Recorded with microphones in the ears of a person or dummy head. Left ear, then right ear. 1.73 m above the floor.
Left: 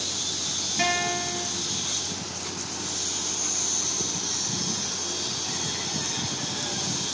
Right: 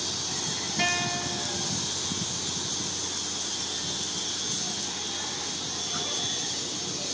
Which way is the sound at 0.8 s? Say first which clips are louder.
Left 2 dB; 10° right (ahead or behind).